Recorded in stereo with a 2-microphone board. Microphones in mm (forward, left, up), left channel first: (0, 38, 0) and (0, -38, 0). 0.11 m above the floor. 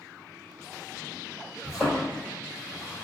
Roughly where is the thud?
Centre.